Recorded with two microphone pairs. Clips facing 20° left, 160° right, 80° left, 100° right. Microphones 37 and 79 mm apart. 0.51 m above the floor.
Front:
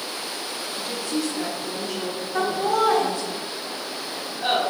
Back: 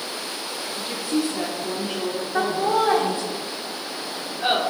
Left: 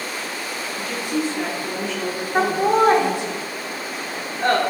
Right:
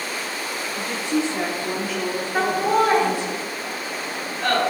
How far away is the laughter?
About 1.1 m.